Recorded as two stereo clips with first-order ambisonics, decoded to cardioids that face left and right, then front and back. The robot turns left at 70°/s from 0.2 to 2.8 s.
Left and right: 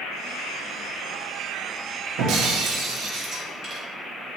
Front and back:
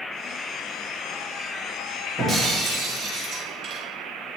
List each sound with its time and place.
2.2 s breaking glass: 105° right, 1.2 m; by 3.8 s 150° right, 1.2 m